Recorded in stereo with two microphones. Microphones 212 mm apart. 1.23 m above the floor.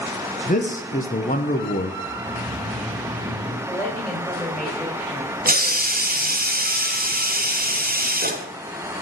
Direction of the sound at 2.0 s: 45° right (ahead or behind).